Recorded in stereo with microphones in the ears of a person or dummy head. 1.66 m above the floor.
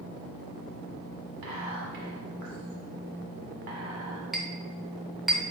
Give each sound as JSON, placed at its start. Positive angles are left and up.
{"t": 1.4, "sound": "whispering", "side_deg": -65, "distance_m": 1.6}
{"t": 4.3, "sound": "a clink", "side_deg": 0, "distance_m": 0.6}